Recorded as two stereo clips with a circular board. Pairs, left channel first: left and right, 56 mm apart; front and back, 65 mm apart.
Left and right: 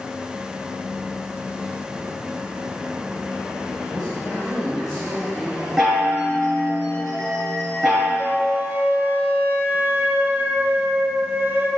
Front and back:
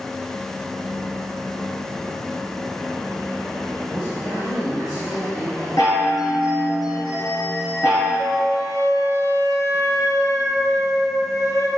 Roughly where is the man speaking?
Ahead.